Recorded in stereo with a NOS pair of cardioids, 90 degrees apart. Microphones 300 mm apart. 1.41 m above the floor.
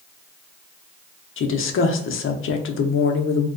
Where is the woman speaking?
45° left, 0.6 m.